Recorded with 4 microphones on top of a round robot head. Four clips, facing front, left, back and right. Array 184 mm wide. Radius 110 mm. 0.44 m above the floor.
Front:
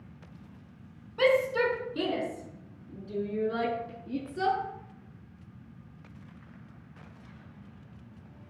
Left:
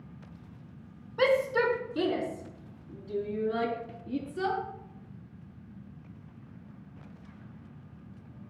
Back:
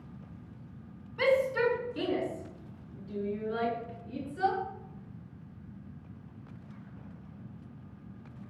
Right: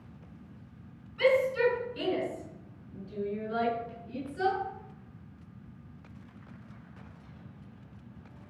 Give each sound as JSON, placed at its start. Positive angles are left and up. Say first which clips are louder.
{"t": 1.2, "sound": "a shout", "louder": "even, front 2 dB", "azimuth_deg": 60, "distance_m": 4.5}